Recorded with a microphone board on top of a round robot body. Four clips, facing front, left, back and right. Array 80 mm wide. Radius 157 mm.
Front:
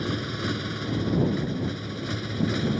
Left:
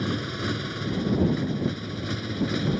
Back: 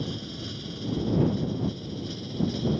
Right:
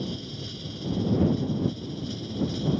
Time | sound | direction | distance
0.0 | a motorcycle | 50° left | ?